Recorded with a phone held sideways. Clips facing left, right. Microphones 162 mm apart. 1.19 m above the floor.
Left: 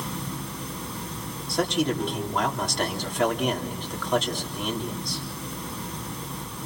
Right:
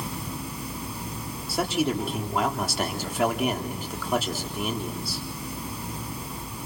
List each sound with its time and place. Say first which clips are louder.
0.0 s running water: even; 10° right (ahead or behind), 5.5 m
1.5 s a man speaking: left 1 dB; 5° right (ahead or behind), 3.5 m